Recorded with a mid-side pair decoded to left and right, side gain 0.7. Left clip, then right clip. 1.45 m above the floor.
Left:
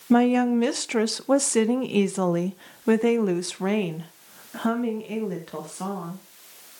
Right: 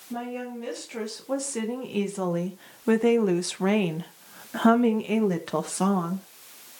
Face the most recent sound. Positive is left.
turn(degrees=-40)